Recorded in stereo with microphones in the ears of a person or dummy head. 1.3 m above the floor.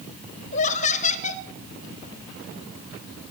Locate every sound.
0.5 s laughter: 35° left (ahead or behind), 1.1 m